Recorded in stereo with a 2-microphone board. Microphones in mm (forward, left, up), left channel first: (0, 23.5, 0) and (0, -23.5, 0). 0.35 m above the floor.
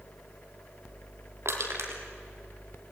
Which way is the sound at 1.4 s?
75° right (ahead or behind).